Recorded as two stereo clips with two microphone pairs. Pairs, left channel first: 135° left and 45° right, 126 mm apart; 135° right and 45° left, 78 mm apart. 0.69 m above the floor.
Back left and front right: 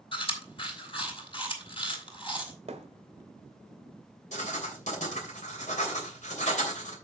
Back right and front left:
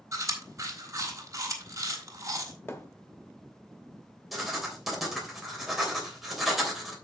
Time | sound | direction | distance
0.1 | chewing | 90° left | 3 m
2.7 | a thud | 75° right | 1.1 m
4.3 | writing | 135° left | 3 m